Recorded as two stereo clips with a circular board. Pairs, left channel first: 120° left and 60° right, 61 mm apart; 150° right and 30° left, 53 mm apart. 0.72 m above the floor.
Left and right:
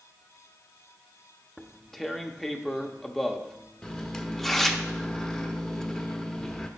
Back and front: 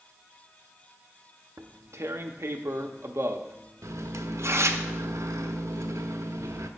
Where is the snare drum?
No snare drum in this recording.